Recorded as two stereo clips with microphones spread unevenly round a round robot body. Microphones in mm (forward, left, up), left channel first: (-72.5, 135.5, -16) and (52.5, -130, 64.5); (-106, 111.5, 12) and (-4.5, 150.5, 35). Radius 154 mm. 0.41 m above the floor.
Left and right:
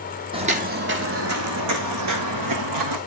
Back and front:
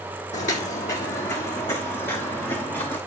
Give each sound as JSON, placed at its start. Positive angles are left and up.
{"t": 0.3, "sound": "footsteps", "azimuth_deg": -130, "distance_m": 1.1}